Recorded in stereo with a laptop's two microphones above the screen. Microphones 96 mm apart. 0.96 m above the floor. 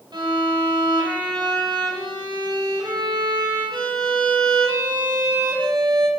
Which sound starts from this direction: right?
A violin, at 0.1 s.